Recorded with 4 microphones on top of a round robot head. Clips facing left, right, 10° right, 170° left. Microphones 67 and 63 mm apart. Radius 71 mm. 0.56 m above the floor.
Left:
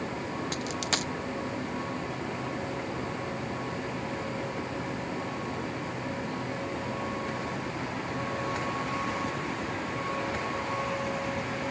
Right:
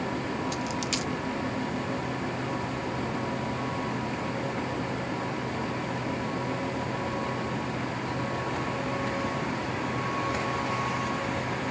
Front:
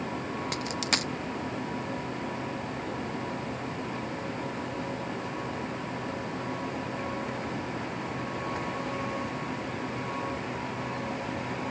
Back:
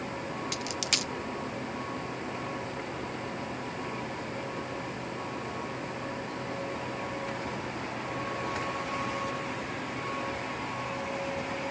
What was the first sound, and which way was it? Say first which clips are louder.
A dropped coin: right 1 dB, front 3 dB; 40° left.